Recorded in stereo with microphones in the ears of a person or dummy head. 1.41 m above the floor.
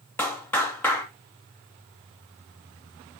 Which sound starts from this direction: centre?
A clap, at 0.2 s.